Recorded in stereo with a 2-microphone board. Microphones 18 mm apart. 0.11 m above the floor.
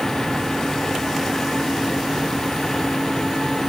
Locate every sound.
Only background noise.